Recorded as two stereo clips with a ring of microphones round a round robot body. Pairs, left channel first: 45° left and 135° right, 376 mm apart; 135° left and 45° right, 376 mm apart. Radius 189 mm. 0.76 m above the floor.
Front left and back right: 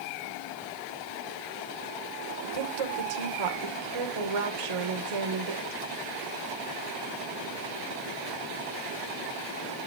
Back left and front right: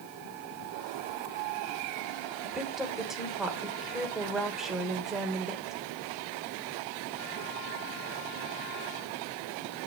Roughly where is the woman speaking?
Behind right.